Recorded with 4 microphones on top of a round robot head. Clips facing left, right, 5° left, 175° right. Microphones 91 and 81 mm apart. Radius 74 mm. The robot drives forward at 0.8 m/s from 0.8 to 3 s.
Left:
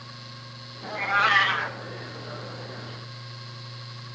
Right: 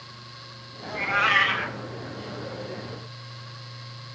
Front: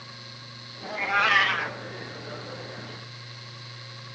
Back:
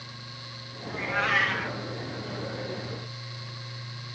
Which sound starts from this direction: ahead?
A cat meowing, at 0.8 s.